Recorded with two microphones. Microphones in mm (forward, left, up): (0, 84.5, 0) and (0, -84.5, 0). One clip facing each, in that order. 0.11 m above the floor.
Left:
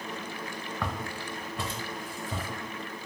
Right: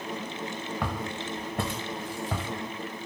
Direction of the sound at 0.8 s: 5° right (ahead or behind).